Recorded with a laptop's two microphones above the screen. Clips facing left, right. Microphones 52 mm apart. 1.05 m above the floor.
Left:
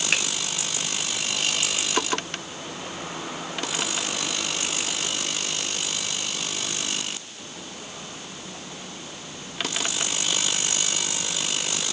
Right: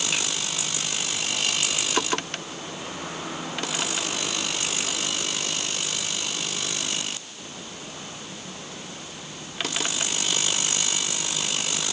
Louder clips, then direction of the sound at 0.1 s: Left 6 dB; 55° left (ahead or behind).